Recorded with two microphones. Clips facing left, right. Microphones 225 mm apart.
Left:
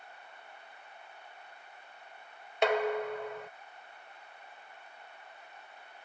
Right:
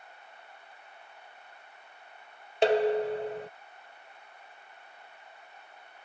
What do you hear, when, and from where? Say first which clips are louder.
2.6 s dishes clattering: right 5 dB; 35° right (ahead or behind)